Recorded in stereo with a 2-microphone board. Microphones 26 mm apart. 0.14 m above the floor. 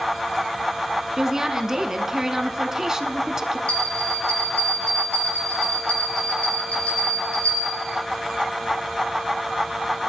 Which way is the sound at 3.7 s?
55° left (ahead or behind).